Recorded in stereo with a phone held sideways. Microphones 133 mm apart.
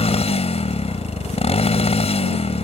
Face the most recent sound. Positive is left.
turn(degrees=50)  # may be behind; listen again after turning